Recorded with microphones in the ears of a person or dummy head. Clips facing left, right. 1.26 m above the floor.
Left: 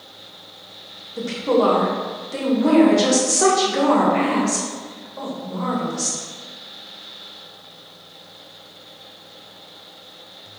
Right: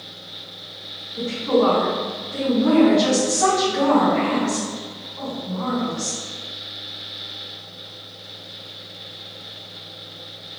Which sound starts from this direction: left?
A woman speaking, at 1.2 s.